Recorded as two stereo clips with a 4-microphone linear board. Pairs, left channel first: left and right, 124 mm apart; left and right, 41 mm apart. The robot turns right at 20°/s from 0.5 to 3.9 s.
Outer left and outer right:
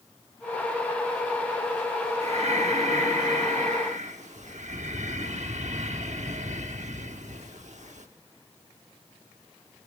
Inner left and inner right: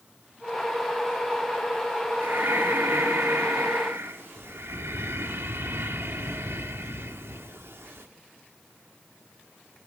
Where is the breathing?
115° right, 1.0 m; by 8.1 s 85° right, 1.0 m.